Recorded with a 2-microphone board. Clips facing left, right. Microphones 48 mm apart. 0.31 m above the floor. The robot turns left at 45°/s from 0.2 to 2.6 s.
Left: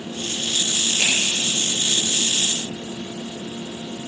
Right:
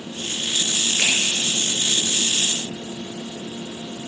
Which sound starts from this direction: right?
A finger snap, at 1.0 s.